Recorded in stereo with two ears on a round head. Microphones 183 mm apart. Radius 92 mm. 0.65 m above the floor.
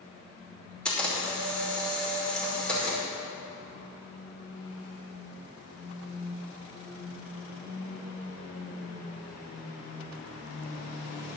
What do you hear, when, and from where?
0.8 s a camera shutter: 5° left (ahead or behind), 2.5 m